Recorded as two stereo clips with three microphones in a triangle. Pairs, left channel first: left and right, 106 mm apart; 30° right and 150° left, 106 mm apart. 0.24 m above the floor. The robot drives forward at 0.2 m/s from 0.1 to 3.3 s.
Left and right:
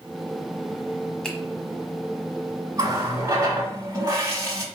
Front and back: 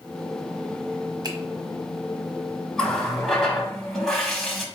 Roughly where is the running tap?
Right.